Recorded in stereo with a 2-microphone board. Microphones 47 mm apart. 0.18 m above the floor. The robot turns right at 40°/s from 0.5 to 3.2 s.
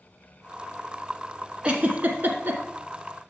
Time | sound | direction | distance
1.6 | a giggle | 25° right (ahead or behind) | 1.1 m